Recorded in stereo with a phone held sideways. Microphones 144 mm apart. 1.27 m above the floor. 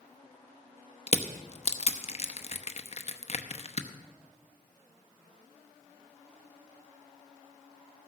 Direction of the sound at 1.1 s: 45° left (ahead or behind).